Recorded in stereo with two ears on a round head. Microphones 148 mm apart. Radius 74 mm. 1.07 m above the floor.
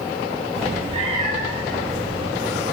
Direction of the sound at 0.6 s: 35° right (ahead or behind).